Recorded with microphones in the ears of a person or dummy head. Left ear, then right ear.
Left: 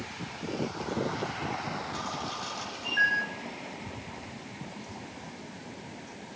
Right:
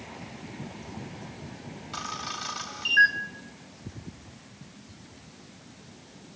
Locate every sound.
1.9 s a camera shutter: 30° right (ahead or behind), 1.6 m